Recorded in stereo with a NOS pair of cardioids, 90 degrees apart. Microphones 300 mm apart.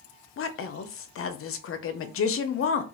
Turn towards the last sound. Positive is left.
turn(degrees=45)